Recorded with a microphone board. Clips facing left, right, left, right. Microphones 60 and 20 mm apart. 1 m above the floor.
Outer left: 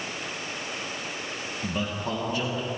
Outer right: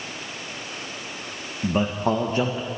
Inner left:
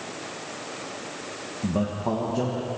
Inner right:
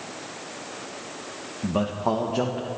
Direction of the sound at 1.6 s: 35° right (ahead or behind).